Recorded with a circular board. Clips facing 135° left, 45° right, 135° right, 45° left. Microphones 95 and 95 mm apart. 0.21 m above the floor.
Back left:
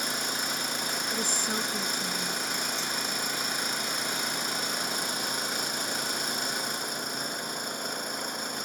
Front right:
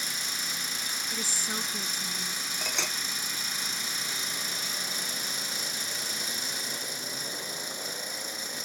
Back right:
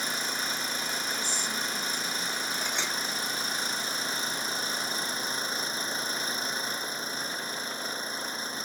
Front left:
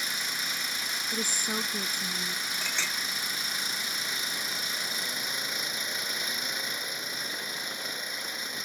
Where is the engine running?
170° left.